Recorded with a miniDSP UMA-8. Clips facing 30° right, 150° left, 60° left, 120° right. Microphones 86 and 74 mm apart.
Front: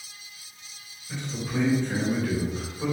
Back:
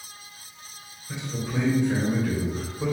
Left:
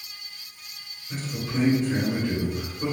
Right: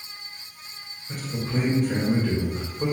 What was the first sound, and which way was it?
A man speaking, 135° right.